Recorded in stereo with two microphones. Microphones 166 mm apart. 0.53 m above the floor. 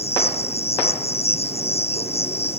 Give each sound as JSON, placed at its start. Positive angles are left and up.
{"t": 0.0, "sound": "an insect", "side_deg": 40}